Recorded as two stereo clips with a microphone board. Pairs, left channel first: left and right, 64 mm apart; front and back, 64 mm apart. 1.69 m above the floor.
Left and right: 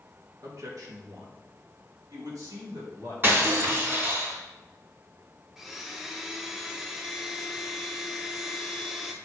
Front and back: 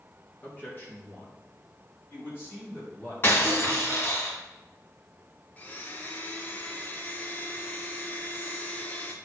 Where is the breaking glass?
45° right, 2.5 m.